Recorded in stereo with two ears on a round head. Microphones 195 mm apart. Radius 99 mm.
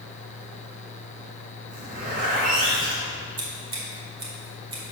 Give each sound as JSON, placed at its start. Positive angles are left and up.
{"t": 1.7, "sound": "a zipper", "side_deg": -40, "distance_m": 1.9}
{"t": 3.4, "sound": "scissors", "side_deg": -25, "distance_m": 1.8}